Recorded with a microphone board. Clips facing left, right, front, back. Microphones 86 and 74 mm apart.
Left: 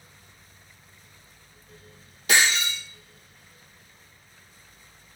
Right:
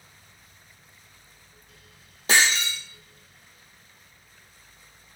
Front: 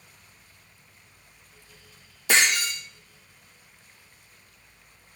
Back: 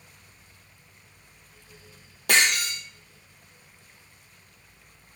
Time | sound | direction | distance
2.3 | breaking glass | 150° right | 3 m